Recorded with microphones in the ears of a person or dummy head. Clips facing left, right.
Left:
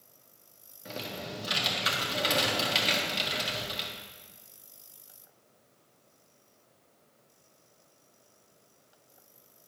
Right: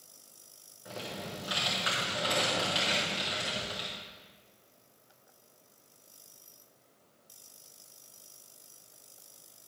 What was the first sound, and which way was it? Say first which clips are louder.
Typing on a keyboard: left 2 dB; 30° left (ahead or behind).